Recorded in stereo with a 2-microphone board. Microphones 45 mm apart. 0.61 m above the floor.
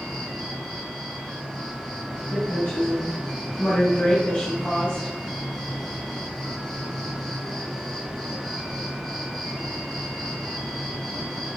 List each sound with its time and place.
0.0 s an insect: 5° left (ahead or behind), 4.5 m
2.3 s a woman speaking: 30° left (ahead or behind), 3.5 m